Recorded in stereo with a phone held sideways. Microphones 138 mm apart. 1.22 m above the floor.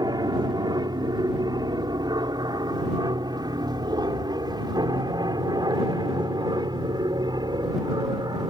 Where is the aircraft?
30° right (ahead or behind).